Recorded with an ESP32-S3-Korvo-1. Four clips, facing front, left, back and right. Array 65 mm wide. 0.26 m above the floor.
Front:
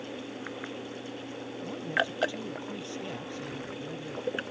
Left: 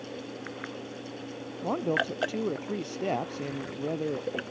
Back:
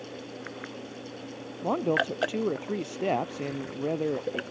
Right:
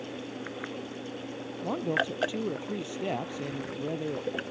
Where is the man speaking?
165° left.